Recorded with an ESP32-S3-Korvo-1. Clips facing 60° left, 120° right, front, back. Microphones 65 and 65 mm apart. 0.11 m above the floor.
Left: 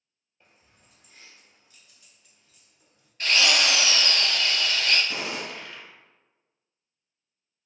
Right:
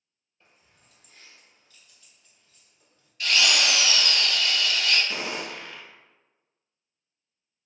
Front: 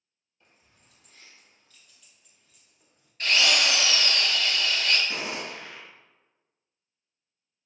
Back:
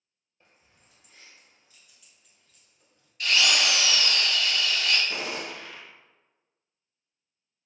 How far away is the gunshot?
About 1.8 m.